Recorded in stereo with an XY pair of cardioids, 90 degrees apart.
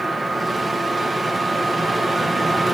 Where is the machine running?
25° right, 1.5 m.